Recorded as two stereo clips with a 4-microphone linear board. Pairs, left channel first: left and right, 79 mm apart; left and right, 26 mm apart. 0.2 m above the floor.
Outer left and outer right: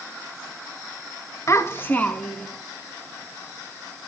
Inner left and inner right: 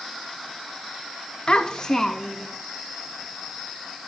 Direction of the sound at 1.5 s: 40° left (ahead or behind).